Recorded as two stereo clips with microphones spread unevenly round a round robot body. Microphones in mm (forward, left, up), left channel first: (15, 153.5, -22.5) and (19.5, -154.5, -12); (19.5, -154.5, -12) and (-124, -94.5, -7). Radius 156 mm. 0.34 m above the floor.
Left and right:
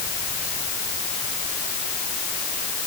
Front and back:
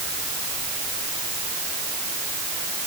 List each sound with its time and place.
Only background noise.